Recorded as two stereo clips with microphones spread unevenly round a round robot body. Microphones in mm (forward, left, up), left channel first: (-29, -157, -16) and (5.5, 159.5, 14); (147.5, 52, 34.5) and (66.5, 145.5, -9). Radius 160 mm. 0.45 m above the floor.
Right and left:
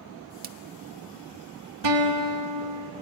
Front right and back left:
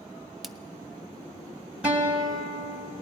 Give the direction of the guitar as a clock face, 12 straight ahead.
10 o'clock.